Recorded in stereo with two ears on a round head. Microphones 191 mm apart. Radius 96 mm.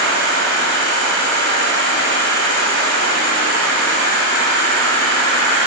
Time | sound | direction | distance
0.0 | an insect | 80° left | 1.1 m